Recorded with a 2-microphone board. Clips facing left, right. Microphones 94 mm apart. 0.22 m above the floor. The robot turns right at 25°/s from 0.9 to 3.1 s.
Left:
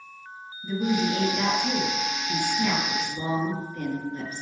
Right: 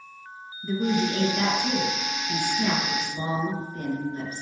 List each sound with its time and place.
0.6 s a woman speaking: 95° right, 3.5 m; by 4.4 s 40° right, 3.5 m